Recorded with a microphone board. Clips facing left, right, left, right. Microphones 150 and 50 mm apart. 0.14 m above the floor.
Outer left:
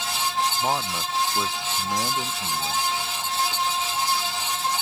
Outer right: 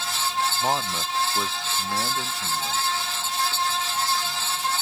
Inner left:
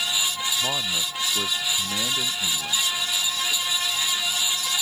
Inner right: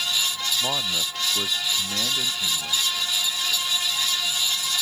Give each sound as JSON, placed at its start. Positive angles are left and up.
{"t": 0.6, "sound": "a man speaking", "side_deg": -5}